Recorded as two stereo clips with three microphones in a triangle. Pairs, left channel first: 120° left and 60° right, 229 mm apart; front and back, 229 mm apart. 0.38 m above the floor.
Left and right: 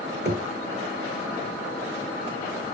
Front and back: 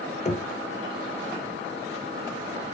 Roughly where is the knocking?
Ahead right.